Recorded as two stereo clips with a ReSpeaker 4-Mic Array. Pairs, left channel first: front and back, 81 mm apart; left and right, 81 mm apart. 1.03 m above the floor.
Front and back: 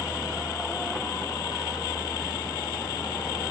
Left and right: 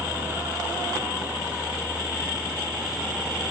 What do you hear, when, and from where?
0.0 s a helicopter: 30° right; by 3.5 s 15° right